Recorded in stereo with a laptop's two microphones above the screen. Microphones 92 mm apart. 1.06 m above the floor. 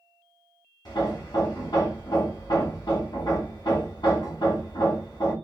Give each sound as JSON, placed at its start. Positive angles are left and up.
{"t": 0.8, "sound": "hammering", "side_deg": 50, "distance_m": 1.3}